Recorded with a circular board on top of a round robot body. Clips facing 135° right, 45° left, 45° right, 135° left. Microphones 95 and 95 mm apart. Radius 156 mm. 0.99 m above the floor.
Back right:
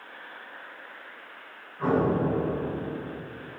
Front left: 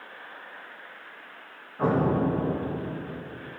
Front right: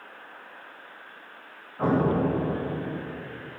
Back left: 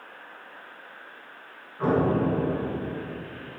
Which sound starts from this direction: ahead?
An explosion, at 1.8 s.